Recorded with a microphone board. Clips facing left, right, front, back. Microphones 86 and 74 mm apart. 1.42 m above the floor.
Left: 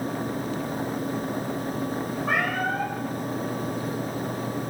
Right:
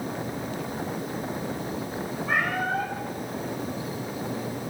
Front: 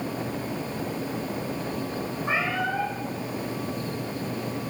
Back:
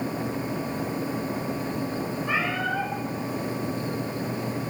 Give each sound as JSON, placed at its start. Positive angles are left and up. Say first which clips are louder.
{"t": 2.2, "sound": "a cat meowing", "louder": "even, front 1 dB", "azimuth_deg": 65, "distance_m": 10.0}